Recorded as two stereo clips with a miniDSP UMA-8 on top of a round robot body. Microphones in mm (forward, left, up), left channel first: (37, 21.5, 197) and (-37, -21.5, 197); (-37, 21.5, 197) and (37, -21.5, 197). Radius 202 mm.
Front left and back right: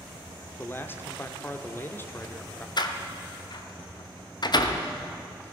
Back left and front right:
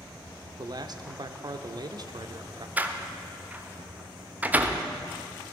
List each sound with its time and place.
0.6 s a man speaking: 30° right, 1.2 m
2.8 s a door slam: 35° left, 1.4 m